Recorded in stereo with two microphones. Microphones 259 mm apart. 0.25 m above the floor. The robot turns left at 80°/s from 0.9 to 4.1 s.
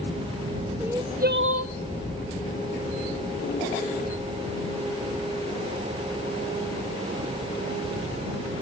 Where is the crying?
10° right; by 1.7 s 75° right.